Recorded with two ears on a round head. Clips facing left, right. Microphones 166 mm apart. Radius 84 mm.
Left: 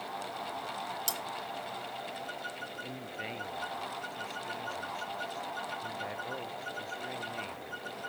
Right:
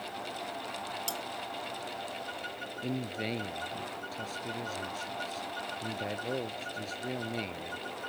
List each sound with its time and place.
1.1 s cutlery clinking: 15° left (ahead or behind)
2.8 s a man speaking: 45° right (ahead or behind)